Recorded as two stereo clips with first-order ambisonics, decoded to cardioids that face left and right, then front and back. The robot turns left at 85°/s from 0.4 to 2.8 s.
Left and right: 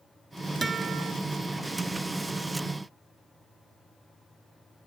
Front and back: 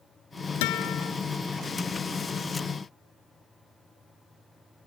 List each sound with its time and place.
0.6 s a guitar: 10° right; by 1.1 s 55° right